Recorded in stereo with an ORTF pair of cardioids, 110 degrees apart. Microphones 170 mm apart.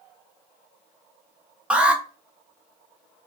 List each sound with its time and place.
1.7 s an alarm: 5° right, 0.9 m